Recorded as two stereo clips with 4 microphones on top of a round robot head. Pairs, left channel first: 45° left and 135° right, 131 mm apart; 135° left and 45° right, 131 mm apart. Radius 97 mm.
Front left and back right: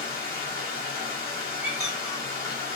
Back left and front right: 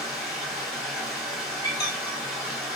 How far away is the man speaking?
I don't hear a man speaking.